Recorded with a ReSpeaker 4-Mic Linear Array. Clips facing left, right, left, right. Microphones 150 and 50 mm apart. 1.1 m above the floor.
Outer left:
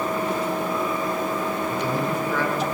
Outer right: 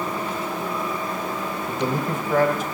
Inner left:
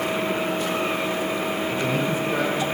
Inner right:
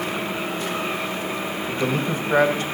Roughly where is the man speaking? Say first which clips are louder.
Even, inner right 3 dB; right.